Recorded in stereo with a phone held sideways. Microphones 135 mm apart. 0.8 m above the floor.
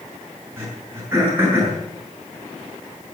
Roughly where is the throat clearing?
Centre.